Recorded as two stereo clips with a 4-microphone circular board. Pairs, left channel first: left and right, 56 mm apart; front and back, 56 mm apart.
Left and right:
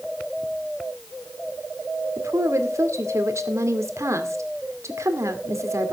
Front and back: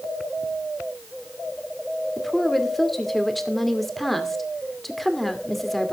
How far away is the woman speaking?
About 2 m.